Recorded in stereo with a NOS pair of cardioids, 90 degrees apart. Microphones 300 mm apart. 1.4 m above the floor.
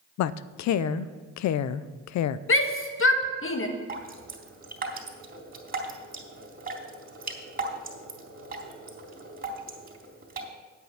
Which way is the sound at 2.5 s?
45° left.